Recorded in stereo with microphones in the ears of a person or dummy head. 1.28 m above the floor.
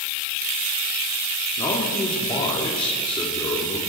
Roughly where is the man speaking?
Left.